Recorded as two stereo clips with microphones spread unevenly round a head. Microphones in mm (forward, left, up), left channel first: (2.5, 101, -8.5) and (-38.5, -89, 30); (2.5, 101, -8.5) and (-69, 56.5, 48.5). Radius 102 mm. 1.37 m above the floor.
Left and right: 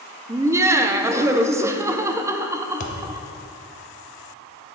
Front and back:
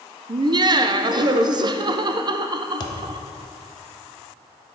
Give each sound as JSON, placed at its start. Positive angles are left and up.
{"t": 0.3, "sound": "laughter", "azimuth_deg": -175, "distance_m": 0.5}
{"t": 2.8, "sound": "a thud", "azimuth_deg": 95, "distance_m": 0.7}